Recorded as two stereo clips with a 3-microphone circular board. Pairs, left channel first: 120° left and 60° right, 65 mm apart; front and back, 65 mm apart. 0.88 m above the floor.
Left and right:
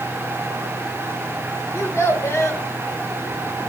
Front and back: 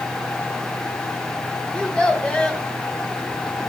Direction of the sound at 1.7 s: 75° left.